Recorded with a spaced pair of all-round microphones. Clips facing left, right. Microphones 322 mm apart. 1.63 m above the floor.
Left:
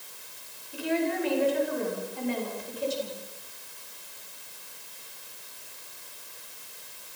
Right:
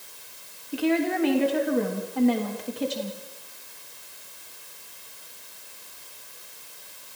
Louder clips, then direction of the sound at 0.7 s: Right 4 dB; 75° right (ahead or behind).